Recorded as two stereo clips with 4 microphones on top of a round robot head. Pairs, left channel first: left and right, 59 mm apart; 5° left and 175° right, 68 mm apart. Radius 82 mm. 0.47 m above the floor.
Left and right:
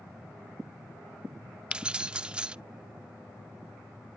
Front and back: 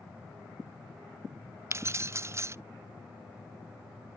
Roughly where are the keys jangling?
Behind right.